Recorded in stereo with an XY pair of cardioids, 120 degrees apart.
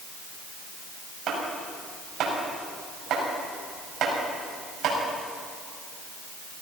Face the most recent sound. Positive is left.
turn(degrees=-55)